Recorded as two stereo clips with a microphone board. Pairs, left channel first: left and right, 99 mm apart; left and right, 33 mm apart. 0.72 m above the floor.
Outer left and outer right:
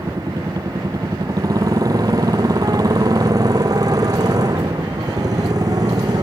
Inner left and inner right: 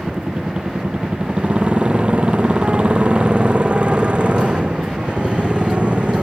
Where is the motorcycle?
35° right (ahead or behind); by 6.2 s 40° right (ahead or behind).